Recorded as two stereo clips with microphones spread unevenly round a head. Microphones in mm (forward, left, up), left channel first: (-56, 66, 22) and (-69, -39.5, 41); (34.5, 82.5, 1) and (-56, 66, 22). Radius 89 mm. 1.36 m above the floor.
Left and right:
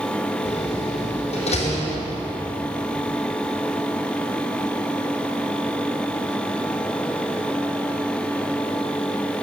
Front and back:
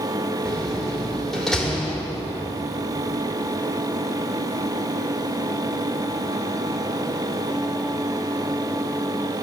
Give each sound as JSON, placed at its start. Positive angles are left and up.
{"t": 0.5, "sound": "a door slam", "azimuth_deg": 100, "distance_m": 3.5}